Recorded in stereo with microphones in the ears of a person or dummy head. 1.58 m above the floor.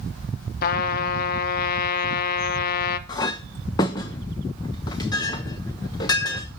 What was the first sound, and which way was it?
A trumpet, 55° left (ahead or behind).